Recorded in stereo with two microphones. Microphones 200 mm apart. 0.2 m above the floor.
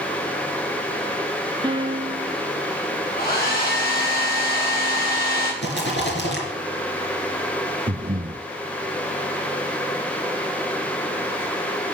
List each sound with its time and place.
1.6 s a piano: 25° right (ahead or behind), 0.9 m
3.2 s a hair dryer: 50° left (ahead or behind), 9 m
5.6 s a rattle: 65° left (ahead or behind), 3.5 m
7.9 s breathing: 50° right (ahead or behind), 0.6 m